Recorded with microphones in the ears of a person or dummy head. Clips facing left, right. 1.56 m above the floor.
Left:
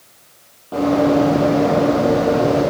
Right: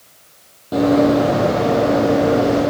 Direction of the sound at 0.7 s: 25° right (ahead or behind).